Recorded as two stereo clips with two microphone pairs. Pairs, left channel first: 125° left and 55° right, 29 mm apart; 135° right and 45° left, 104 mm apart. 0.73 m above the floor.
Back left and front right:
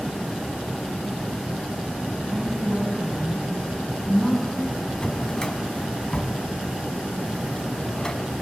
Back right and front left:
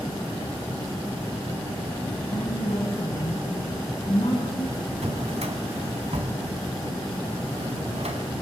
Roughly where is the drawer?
Ahead left.